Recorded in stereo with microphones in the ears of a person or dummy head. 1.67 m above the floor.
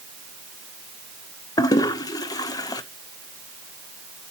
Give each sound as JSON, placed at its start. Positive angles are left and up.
{"t": 1.6, "sound": "a toilet flushing", "side_deg": 15, "distance_m": 0.8}